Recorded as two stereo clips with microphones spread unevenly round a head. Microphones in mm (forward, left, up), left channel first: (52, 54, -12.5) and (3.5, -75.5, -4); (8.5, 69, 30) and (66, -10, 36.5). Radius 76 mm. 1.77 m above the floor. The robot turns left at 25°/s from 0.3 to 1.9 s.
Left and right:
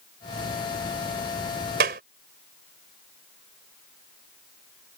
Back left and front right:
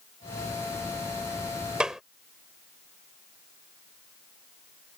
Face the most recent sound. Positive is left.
turn(degrees=-140)